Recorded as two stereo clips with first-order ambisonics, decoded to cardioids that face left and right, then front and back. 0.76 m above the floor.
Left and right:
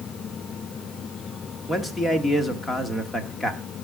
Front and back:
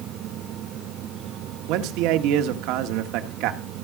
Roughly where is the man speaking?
Behind.